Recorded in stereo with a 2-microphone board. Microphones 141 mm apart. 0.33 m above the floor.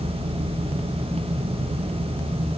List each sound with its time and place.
Only background noise.